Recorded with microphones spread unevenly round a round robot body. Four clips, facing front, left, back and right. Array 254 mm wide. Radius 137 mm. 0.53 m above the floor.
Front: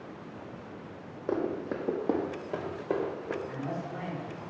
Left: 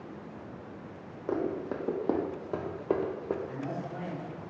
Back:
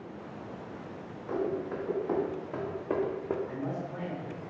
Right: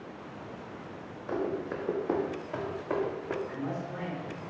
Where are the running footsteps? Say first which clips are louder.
Left 1 dB, front 1 dB; 40° left, 1.2 m; by 3.4 s 145° left, 0.7 m.